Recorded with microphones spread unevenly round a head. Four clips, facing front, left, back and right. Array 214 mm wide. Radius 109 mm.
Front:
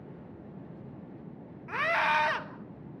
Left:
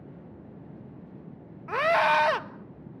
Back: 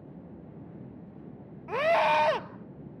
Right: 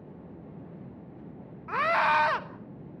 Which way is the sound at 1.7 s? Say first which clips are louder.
Left 2 dB, back 4 dB; 155° left.